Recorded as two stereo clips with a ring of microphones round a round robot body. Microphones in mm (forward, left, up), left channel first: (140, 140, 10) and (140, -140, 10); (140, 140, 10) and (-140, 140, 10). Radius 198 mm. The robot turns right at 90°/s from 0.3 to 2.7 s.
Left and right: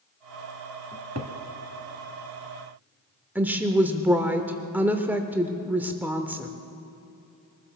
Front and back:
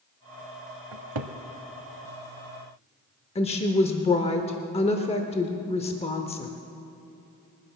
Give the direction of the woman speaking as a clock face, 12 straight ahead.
1 o'clock.